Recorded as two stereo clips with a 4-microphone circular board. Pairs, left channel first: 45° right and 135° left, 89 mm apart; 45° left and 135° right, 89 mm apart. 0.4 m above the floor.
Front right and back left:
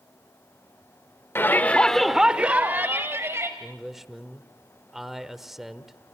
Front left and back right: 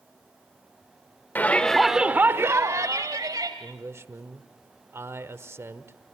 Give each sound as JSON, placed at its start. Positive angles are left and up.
{"t": 1.4, "sound": "a shout", "azimuth_deg": -5, "distance_m": 1.0}
{"t": 3.6, "sound": "a man speaking", "azimuth_deg": -140, "distance_m": 1.1}